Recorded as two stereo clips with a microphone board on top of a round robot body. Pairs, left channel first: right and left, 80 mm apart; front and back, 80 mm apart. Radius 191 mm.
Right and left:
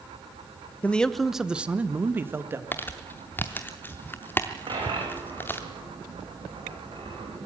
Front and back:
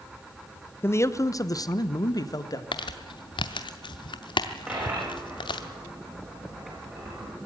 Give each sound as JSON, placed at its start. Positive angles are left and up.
{"t": 0.8, "sound": "a man speaking", "azimuth_deg": -30, "distance_m": 1.0}
{"t": 2.7, "sound": "crumpling", "azimuth_deg": -25, "distance_m": 0.6}
{"t": 4.7, "sound": "a dropped coin", "azimuth_deg": 110, "distance_m": 8.5}